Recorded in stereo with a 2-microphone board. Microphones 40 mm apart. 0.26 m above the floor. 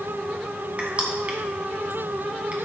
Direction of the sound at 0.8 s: 30° right (ahead or behind).